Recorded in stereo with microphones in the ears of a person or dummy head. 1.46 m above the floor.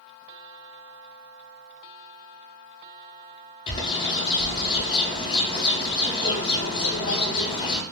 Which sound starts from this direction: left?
A bird, at 3.7 s.